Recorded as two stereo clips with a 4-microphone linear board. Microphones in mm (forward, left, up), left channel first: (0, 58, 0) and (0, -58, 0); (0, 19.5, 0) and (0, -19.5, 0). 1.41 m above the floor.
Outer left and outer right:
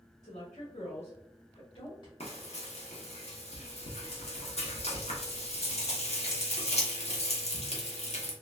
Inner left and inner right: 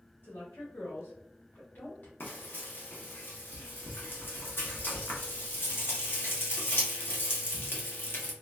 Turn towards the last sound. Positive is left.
turn(degrees=70)  # may be behind; listen again after turning